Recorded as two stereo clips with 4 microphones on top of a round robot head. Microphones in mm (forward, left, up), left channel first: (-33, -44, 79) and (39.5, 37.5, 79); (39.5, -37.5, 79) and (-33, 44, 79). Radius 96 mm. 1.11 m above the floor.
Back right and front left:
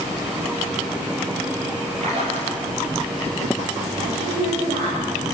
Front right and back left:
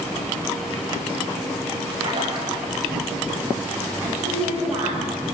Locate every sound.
2.0 s a splash: 80° left, 5.5 m
4.0 s a woman speaking: 55° left, 5.5 m